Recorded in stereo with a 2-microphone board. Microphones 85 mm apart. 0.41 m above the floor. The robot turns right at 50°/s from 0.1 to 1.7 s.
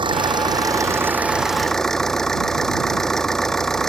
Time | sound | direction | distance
0.0 | an engine running | 75° right | ?